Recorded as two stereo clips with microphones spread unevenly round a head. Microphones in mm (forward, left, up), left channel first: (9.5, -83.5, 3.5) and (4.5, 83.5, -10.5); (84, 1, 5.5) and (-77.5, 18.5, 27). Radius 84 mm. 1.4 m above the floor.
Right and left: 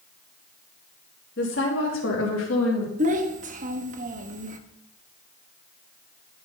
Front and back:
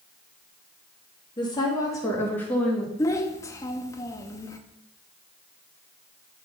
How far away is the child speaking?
About 0.9 m.